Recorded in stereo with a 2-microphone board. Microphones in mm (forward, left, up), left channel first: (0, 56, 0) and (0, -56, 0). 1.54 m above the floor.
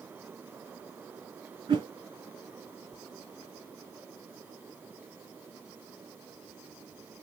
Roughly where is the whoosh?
Right.